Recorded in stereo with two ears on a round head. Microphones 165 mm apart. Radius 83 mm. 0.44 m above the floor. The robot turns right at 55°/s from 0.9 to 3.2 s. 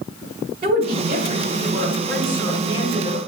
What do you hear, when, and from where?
0.6 s a woman speaking: 65° right, 1.6 m; by 3.2 s 60° left, 1.6 m